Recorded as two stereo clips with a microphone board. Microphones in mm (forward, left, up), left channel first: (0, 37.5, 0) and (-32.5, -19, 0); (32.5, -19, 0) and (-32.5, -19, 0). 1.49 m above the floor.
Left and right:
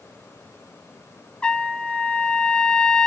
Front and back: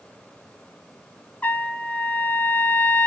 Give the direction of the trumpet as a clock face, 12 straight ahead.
12 o'clock.